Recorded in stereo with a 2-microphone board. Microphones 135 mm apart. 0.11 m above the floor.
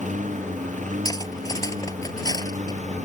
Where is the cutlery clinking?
30° left (ahead or behind).